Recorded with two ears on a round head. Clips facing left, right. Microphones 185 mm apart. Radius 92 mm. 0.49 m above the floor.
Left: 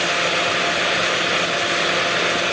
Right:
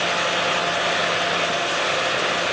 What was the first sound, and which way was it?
Only background noise.